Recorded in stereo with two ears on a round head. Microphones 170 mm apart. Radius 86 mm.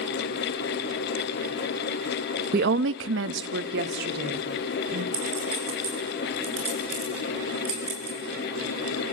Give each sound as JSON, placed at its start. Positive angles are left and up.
{"t": 2.5, "sound": "a woman speaking", "side_deg": -50, "distance_m": 0.7}
{"t": 5.1, "sound": "a clink", "side_deg": -30, "distance_m": 8.0}